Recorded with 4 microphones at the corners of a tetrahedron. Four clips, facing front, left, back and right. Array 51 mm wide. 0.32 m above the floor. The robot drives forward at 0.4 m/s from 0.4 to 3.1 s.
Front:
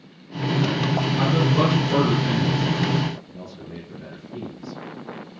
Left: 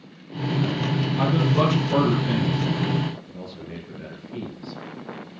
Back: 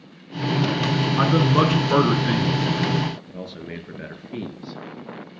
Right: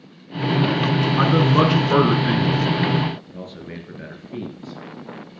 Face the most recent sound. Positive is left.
turn(degrees=-155)